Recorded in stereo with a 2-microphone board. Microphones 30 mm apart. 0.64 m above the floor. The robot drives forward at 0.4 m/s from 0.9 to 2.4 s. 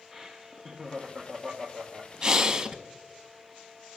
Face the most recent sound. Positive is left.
turn(degrees=-20)  # may be behind; listen again after turning